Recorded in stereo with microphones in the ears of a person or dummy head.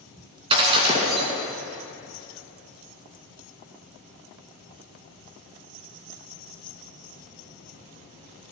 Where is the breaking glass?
25° right (ahead or behind), 2.5 m.